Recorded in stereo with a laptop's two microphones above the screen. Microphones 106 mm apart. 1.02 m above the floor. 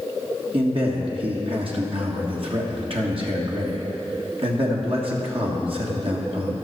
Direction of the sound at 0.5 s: 55° right (ahead or behind).